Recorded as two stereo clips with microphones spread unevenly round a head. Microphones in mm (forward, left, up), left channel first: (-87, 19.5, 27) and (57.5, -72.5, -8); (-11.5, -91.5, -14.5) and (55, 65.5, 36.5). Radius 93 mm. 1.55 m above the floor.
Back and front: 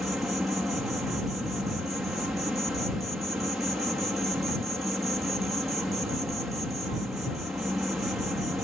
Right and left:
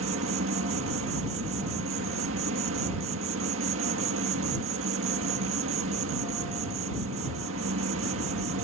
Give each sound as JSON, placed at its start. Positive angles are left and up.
{"t": 0.0, "sound": "an insect", "azimuth_deg": 55}